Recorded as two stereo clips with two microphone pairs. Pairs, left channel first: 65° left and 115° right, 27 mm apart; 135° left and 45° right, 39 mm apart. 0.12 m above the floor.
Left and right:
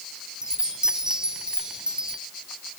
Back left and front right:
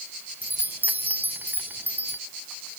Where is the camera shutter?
No camera shutter in this recording.